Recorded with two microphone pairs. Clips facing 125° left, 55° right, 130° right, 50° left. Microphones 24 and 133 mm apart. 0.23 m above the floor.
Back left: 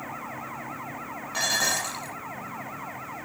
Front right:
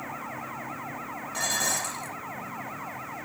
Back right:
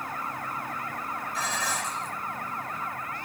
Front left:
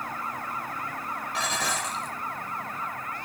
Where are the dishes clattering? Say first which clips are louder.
Back left 3 dB, front left 2 dB; 65° left, 5 m.